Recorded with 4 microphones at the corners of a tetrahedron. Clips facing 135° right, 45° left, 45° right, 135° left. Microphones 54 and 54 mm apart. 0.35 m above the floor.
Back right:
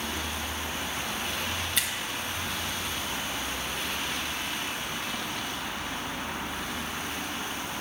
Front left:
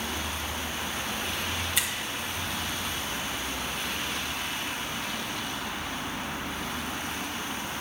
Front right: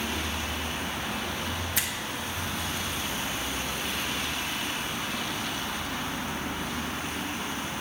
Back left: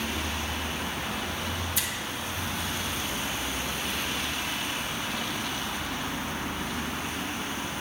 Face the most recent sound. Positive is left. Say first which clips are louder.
# even, front right 1 dB
turn(degrees=-40)